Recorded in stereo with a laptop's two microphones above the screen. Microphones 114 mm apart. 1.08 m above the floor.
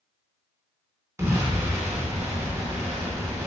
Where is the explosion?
25° right (ahead or behind), 0.7 m.